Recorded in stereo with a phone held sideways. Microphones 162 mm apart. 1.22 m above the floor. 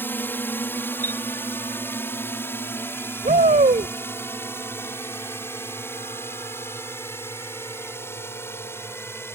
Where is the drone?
10° left (ahead or behind); by 9.4 s 15° left (ahead or behind).